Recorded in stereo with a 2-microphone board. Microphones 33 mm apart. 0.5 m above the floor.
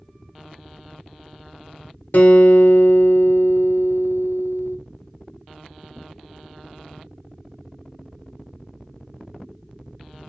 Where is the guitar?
60° left (ahead or behind), 0.9 m.